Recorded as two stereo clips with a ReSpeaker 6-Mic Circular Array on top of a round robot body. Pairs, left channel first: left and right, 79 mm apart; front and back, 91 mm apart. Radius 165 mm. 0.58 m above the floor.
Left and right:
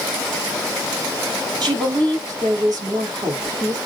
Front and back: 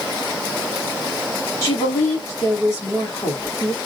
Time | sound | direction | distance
1.6 | a woman speaking | 55° right | 4.5 m